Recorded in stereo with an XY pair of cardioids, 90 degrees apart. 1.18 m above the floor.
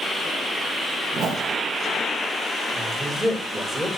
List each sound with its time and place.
1.1 s a whoosh: 55° right, 3.5 m
2.7 s a man speaking: straight ahead, 6.5 m